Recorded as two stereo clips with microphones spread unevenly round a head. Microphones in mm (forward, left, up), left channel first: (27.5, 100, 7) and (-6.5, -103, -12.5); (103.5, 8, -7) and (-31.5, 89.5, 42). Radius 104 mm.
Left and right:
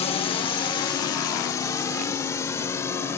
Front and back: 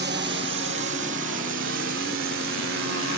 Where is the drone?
145° left; by 3.2 s 160° left.